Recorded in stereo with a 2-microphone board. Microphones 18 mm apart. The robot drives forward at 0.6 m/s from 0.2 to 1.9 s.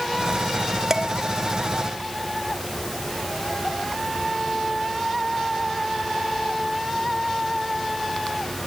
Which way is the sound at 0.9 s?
35° right (ahead or behind).